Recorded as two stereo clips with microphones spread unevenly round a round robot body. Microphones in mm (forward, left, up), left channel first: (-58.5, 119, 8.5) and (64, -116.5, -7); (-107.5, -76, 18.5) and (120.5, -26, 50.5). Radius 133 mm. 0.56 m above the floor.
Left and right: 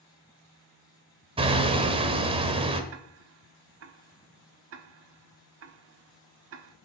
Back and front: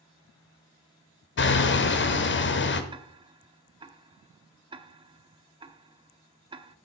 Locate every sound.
1.4 s hammering: 130° right, 1.3 m
2.9 s ticking: 60° right, 1.0 m